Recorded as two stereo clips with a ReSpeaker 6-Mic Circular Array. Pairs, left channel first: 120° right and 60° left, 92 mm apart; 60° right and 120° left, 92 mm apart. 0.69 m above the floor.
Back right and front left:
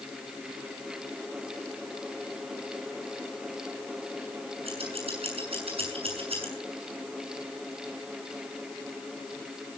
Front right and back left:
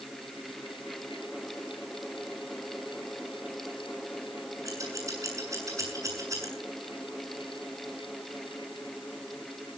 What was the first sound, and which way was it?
Scissors, 65° left.